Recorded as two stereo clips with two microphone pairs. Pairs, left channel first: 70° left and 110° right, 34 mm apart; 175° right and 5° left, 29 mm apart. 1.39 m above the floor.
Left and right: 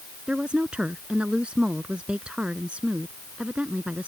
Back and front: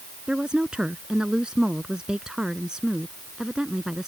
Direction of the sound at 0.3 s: 55° right.